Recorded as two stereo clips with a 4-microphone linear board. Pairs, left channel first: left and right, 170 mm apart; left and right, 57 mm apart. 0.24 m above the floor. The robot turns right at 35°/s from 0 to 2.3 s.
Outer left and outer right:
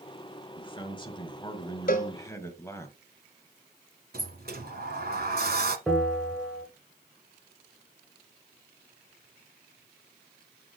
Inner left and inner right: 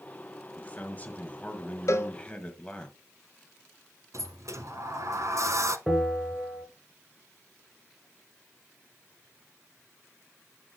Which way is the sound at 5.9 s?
Centre (ahead or behind).